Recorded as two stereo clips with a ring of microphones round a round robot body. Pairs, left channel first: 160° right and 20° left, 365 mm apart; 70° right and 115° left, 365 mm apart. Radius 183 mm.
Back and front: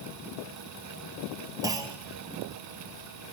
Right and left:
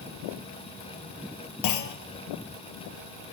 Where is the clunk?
55° right, 0.8 m.